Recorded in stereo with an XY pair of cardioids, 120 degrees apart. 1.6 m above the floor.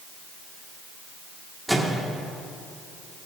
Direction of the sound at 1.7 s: 5° right.